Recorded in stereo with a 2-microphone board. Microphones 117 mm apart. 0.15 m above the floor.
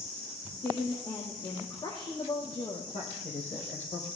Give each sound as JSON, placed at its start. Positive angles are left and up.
{"t": 0.5, "sound": "a woman speaking", "side_deg": 40, "distance_m": 5.0}
{"t": 2.9, "sound": "a man speaking", "side_deg": 75, "distance_m": 4.5}